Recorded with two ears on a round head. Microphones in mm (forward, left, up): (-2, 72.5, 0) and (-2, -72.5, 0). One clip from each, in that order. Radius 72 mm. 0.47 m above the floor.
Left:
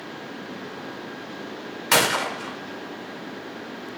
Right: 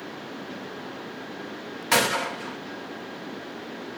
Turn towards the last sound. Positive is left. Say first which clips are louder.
# left 2 dB
turn(degrees=20)  # may be behind; listen again after turning